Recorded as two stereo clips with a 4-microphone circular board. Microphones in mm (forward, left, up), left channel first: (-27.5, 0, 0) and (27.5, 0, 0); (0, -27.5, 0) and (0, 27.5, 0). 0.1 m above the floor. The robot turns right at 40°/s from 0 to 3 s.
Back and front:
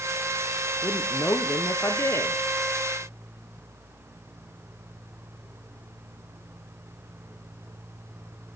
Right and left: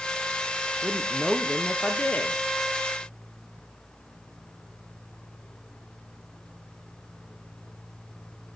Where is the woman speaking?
160° left, 2 m; by 2.4 s 135° right, 2 m.